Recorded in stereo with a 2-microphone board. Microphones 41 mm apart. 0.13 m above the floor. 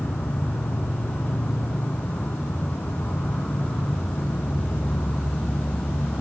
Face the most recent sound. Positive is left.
turn(degrees=65)  # may be behind; listen again after turning